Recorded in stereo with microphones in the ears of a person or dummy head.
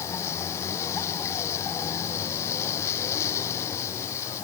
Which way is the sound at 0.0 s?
15° left (ahead or behind).